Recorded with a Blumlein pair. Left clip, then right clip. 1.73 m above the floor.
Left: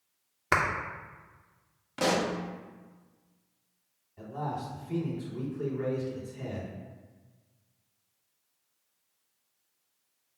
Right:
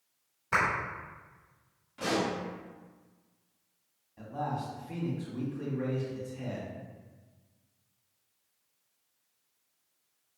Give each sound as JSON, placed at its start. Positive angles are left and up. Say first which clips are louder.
{"t": 0.5, "sound": "a clap", "louder": "left 1 dB", "azimuth_deg": 45, "distance_m": 0.8}
{"t": 2.0, "sound": "a pop", "louder": "left 3 dB", "azimuth_deg": 55, "distance_m": 0.6}
{"t": 4.2, "sound": "a man speaking", "louder": "even", "azimuth_deg": -5, "distance_m": 1.3}